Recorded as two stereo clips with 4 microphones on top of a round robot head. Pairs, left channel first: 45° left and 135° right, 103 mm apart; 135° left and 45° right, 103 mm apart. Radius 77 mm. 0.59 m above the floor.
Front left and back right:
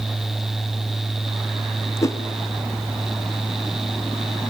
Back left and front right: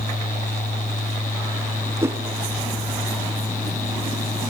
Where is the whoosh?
5° left, 1.5 m.